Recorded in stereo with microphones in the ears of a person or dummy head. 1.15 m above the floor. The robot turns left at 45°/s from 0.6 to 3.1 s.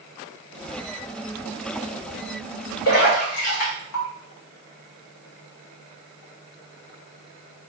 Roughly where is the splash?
Left.